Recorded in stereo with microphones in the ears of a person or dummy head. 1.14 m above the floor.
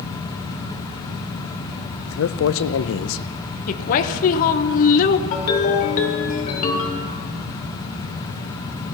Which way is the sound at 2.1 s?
65° left (ahead or behind).